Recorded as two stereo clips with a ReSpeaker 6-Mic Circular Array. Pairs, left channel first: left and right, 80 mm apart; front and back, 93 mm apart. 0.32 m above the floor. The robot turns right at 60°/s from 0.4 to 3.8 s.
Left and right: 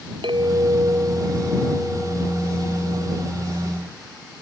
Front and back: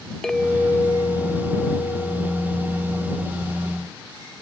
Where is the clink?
85° right; by 3.2 s 85° left.